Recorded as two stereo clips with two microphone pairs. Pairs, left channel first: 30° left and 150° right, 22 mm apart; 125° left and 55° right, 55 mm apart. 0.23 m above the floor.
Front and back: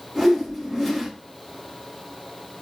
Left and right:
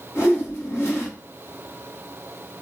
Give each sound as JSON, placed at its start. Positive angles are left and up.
{"t": 0.1, "sound": "a whoosh", "azimuth_deg": 130, "distance_m": 1.6}